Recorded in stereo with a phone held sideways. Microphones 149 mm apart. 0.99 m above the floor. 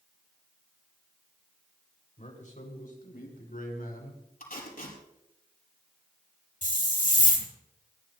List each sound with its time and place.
2.2 s a man speaking: 50° left (ahead or behind), 3 m; by 4.2 s 80° left, 5 m
4.4 s tape being pulled: 70° left (ahead or behind), 5.5 m
6.6 s a hiss: 60° left (ahead or behind), 2.5 m